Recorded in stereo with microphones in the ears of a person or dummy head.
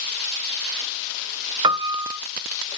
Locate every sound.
1.6 s a piano: 30° right (ahead or behind), 0.6 m